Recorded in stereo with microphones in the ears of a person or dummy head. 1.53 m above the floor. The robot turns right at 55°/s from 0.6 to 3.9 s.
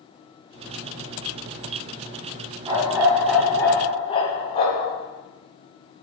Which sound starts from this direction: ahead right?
A dog barking, at 2.7 s.